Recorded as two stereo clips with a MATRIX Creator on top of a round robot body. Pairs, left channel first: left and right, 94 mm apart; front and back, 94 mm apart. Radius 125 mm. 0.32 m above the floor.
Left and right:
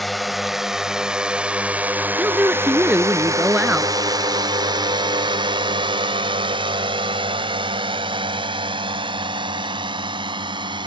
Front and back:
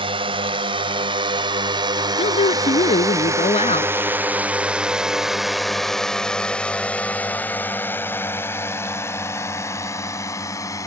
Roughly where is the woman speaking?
Ahead.